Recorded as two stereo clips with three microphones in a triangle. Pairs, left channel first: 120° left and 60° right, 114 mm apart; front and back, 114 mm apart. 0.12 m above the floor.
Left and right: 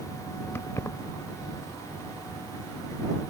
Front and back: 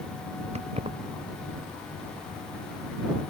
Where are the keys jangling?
170° right.